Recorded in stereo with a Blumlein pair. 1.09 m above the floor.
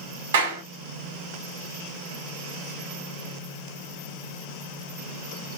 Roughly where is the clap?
Ahead right.